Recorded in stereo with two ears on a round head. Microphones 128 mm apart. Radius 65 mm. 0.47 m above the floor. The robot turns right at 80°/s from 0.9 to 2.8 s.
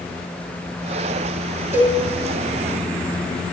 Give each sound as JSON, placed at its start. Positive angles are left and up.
{"t": 1.7, "sound": "a cowbell", "side_deg": -20, "distance_m": 5.5}